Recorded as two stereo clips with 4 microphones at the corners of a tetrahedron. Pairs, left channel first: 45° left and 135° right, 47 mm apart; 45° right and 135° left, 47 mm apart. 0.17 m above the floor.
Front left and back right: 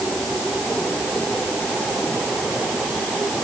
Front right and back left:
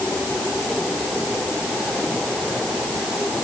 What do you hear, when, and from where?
Only background noise.